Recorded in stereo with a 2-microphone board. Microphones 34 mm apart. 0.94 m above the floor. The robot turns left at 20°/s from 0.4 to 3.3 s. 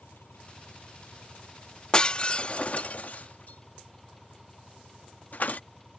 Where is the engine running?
65° left; by 6.0 s 10° left.